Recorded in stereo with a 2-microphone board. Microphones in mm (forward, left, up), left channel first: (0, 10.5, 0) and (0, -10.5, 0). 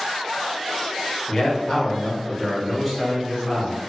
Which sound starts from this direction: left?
A man speaking, at 1.3 s.